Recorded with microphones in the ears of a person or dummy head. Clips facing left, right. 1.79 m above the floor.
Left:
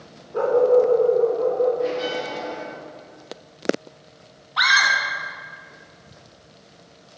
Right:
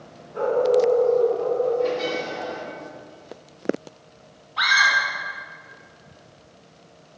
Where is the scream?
80° left, 3 m.